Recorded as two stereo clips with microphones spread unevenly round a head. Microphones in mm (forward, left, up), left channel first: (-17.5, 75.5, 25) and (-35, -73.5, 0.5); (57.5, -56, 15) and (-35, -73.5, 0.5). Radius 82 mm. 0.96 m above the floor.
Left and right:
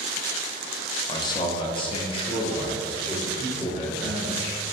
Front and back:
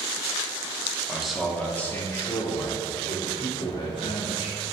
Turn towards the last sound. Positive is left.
turn(degrees=10)